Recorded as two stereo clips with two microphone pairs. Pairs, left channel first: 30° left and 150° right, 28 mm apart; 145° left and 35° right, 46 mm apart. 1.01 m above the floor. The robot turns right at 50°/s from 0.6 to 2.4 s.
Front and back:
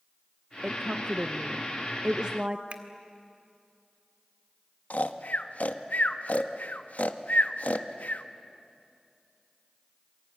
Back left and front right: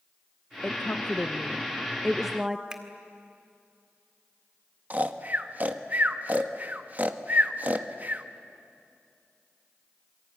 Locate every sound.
0.6 s a woman speaking: 165° left, 1.0 m; by 2.6 s 110° right, 1.0 m
2.7 s a finger snap: 105° right, 1.9 m
4.9 s snoring: 20° left, 1.1 m